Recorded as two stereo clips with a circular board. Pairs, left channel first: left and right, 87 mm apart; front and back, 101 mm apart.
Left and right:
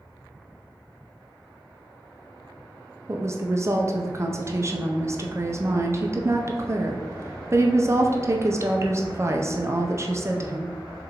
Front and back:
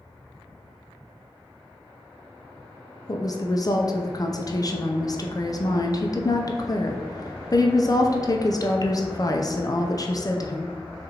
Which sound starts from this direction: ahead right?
A woman speaking, at 3.1 s.